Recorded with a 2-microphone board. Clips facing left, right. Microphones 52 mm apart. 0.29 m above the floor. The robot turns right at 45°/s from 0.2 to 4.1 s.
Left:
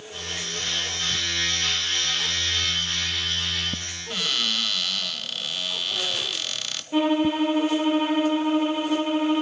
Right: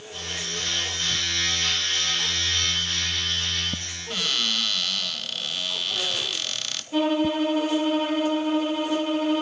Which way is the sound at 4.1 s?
Centre (ahead or behind).